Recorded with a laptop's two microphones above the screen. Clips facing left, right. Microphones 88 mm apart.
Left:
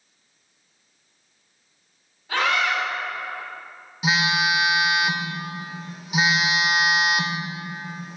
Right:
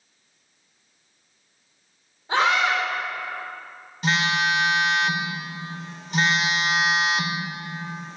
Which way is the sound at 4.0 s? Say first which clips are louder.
Even; 5° left (ahead or behind).